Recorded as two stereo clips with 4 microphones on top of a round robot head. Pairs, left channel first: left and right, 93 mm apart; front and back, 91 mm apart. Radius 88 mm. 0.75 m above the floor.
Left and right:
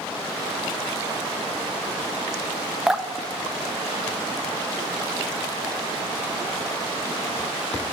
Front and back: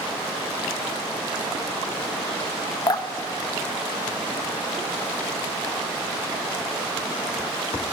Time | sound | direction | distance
2.9 | dripping | 10° right | 0.6 m